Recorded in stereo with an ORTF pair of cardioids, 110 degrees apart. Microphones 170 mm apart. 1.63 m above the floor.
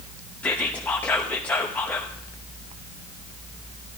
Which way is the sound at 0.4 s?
10° left.